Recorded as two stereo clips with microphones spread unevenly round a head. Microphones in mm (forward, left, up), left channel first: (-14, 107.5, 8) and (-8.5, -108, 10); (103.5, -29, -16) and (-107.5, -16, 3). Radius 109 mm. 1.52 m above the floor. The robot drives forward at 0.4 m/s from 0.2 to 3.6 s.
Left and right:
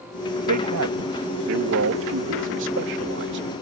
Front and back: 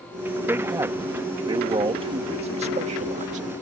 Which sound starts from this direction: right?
A man speaking, at 0.5 s.